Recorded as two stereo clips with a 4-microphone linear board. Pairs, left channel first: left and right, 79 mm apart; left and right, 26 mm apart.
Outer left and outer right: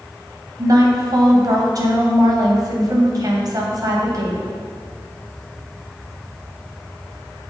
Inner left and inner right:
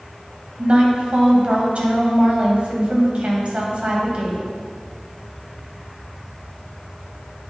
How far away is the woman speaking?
About 2.5 m.